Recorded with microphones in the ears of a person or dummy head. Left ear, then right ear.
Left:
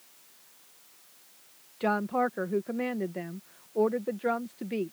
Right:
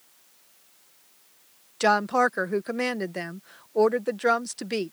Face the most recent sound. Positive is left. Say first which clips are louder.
# right 7 dB
turn(degrees=-60)  # may be behind; listen again after turning